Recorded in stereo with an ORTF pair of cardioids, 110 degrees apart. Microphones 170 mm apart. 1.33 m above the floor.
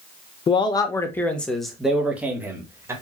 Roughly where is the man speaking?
Ahead left.